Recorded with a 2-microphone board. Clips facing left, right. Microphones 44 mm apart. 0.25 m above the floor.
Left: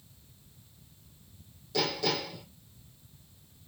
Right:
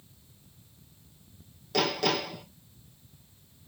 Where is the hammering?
60° right (ahead or behind), 5 m.